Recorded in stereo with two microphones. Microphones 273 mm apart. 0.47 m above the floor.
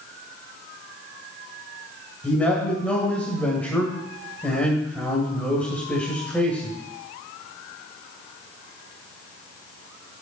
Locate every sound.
2.2 s a man speaking: 5° left (ahead or behind), 2 m